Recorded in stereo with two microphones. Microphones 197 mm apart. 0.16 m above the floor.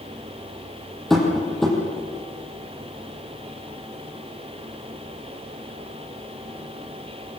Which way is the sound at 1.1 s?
Centre (ahead or behind).